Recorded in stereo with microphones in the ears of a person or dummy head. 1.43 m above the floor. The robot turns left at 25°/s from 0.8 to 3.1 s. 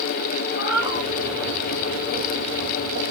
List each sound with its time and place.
0.6 s a cat meowing: 55° left (ahead or behind), 3 m; by 1.1 s 50° left (ahead or behind), 3 m